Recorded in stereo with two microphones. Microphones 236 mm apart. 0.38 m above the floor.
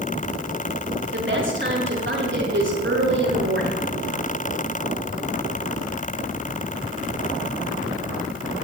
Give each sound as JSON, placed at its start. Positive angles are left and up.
{"t": 1.1, "sound": "a woman speaking", "side_deg": -50, "distance_m": 4.5}